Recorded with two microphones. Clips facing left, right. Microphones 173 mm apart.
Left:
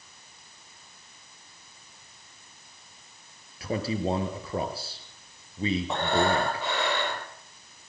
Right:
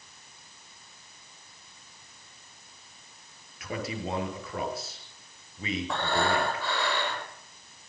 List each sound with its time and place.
3.6 s a man speaking: 30° left (ahead or behind), 5.5 m
5.9 s breathing: 20° left (ahead or behind), 7.5 m